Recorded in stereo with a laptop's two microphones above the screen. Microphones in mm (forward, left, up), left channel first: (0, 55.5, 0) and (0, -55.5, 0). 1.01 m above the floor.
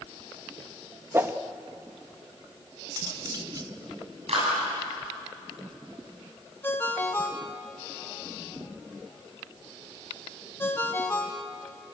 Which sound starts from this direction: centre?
A ringtone, at 6.6 s.